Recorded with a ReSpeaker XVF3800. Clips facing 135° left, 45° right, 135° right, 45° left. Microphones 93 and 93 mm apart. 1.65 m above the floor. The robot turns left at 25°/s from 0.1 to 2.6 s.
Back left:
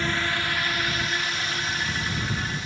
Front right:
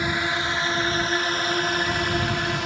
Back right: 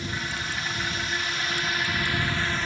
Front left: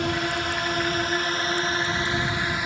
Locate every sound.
0.0 s a drone: 30° left; by 2.7 s 30° right